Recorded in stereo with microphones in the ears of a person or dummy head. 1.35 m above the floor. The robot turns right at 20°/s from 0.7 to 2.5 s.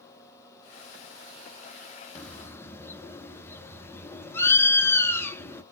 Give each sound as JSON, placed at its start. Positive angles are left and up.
{"t": 2.1, "sound": "a bird", "side_deg": 10, "distance_m": 0.7}